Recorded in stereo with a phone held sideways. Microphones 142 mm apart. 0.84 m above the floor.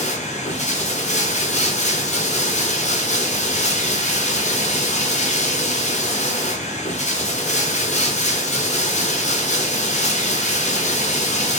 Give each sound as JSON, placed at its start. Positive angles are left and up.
{"t": 0.0, "sound": "running water", "side_deg": 55, "distance_m": 0.8}